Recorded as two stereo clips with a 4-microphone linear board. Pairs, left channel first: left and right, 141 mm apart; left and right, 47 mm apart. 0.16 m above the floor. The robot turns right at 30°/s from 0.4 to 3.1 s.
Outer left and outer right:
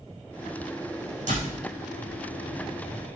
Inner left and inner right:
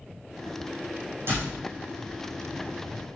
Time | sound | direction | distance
1.3 | a door slam | 60° right (ahead or behind) | 6.5 m